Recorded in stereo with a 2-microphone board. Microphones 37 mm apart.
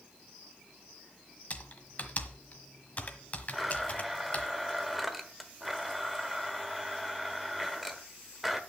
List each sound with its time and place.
1.5 s typing on a keyboard: 40° left (ahead or behind), 1.3 m
3.5 s a blender: centre (ahead or behind), 1.1 m